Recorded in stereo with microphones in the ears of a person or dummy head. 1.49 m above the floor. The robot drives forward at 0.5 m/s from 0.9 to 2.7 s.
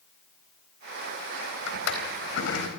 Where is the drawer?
60° left (ahead or behind), 4.5 m; by 2.7 s 55° left (ahead or behind), 4.5 m.